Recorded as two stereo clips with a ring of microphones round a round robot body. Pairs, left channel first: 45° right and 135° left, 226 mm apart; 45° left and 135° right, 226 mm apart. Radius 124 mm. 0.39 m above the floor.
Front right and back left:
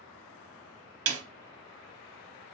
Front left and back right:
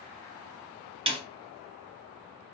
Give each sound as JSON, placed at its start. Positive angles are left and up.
{"t": 1.1, "sound": "a snare drum", "azimuth_deg": 155, "distance_m": 0.9}